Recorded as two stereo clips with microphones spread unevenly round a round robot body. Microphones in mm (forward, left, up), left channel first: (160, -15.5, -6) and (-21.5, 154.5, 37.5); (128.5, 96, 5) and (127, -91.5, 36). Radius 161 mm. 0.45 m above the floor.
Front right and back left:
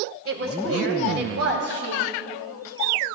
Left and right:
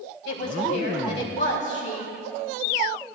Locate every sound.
0.2 s a woman speaking: 105° left, 3.5 m; by 2.1 s 120° left, 4 m